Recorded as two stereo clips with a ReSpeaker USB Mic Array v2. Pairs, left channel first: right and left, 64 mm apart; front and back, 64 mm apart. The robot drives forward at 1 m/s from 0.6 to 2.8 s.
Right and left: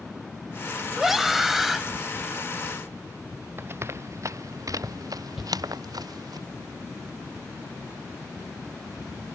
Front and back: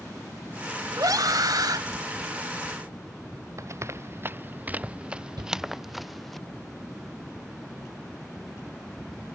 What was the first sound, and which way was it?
A scream, 175° left.